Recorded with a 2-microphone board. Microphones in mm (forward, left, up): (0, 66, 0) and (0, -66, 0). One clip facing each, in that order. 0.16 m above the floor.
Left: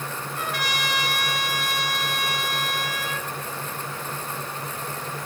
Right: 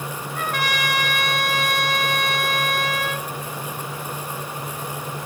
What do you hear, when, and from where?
0.3 s a trumpet: 55° right (ahead or behind), 1.4 m